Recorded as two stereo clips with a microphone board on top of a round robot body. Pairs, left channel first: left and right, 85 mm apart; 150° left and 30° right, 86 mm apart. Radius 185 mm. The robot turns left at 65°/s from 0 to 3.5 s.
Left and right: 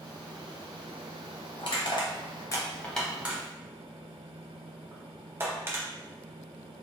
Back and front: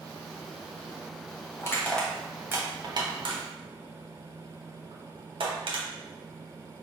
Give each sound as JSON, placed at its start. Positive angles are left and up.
{"t": 1.6, "sound": "crushing", "azimuth_deg": 95, "distance_m": 1.0}